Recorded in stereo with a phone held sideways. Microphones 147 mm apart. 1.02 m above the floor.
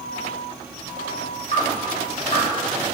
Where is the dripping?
50° left (ahead or behind), 1.7 m.